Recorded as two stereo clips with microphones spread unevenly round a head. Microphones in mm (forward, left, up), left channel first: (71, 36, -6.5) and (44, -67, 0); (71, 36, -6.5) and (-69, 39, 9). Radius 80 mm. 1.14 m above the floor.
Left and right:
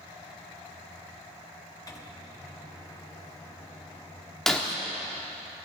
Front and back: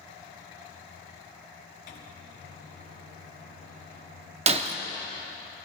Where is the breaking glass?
165° left, 0.8 m.